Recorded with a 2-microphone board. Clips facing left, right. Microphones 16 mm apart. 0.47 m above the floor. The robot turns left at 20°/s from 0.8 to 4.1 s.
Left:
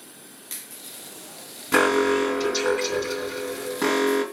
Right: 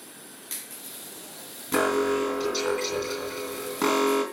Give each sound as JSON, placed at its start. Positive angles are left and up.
{"t": 1.7, "sound": "an alarm", "azimuth_deg": 30, "distance_m": 3.0}